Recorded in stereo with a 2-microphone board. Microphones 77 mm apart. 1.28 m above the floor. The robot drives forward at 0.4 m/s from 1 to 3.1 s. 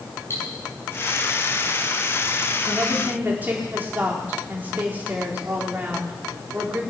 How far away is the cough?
I don't hear a cough.